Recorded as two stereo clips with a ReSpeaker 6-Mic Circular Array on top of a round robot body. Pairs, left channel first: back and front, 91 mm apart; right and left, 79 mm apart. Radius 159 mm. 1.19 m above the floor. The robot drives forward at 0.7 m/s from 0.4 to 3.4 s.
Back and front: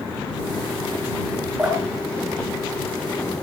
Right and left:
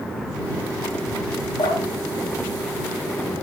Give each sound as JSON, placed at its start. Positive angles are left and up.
{"t": 1.6, "sound": "dripping", "azimuth_deg": -80, "distance_m": 8.5}